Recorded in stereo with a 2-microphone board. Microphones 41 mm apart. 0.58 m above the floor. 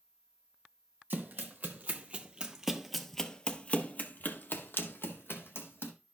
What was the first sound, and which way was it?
Running footsteps, 50° right (ahead or behind).